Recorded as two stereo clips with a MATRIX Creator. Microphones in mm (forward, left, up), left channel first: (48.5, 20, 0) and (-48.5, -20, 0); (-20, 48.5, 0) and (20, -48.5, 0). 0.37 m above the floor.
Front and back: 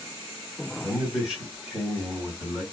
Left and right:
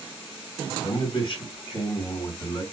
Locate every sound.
0.8 s a man speaking: 120° left, 2.5 m